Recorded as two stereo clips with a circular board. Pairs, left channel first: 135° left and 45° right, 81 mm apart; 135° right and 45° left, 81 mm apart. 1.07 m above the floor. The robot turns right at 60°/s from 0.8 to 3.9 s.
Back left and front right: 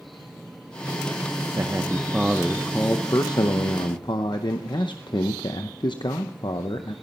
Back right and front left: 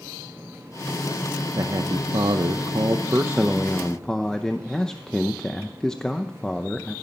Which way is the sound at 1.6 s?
Straight ahead.